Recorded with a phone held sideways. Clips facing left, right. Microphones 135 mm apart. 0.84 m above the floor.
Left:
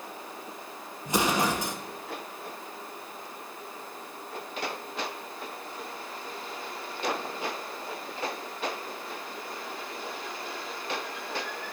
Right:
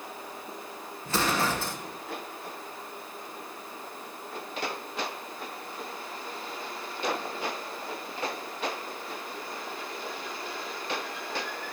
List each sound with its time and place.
1.1 s an explosion: 15° left (ahead or behind), 0.7 m